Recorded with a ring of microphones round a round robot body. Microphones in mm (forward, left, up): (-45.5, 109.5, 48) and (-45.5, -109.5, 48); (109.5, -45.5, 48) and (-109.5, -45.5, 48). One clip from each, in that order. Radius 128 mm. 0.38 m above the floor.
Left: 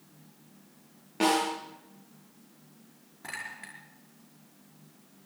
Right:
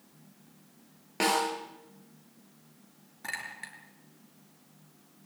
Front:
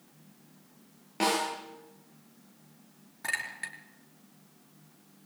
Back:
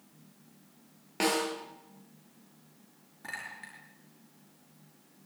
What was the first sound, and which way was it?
A snare drum, 120° right.